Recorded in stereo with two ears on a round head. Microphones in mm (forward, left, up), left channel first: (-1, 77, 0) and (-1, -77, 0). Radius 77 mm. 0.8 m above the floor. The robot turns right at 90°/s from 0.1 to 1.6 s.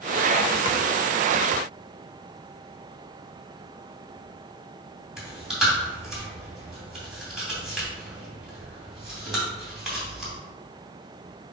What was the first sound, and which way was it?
Chewing, 5° right (ahead or behind).